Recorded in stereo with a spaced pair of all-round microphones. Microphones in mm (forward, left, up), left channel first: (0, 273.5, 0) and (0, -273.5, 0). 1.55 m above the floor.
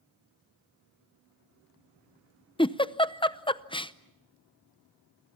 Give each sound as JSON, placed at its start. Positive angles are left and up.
{"t": 2.6, "sound": "a giggle", "side_deg": 10, "distance_m": 0.6}